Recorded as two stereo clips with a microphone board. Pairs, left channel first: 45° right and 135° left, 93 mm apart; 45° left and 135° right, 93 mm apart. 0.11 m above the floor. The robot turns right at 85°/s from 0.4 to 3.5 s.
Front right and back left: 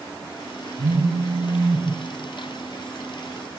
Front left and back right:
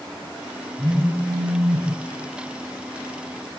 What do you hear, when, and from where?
0.8 s a phone buzzing: 140° left, 6.5 m; by 1.9 s 125° right, 6.5 m